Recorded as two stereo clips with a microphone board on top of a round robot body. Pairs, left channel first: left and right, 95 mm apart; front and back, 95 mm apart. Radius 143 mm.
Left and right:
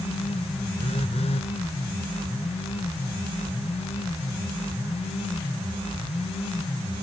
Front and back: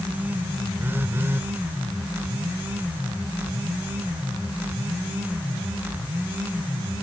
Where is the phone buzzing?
115° left.